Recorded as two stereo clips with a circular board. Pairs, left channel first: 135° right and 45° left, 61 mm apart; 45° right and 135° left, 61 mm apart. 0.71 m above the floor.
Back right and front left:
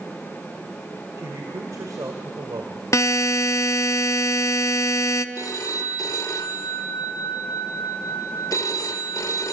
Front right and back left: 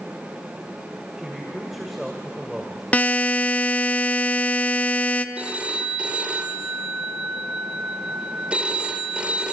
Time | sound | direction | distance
1.2 | a man speaking | 50° left | 2.5 m
2.9 | a buzzer | 105° right | 0.8 m
5.3 | a phone ringing | 155° right | 1.6 m